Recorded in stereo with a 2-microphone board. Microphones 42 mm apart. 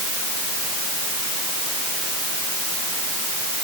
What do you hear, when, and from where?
Only background noise.